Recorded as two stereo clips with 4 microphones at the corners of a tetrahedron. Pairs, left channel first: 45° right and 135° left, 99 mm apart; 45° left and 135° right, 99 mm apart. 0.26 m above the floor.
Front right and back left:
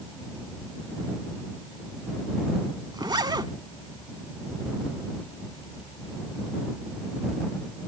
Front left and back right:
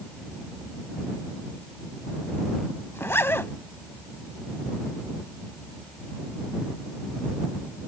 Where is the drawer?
No drawer in this recording.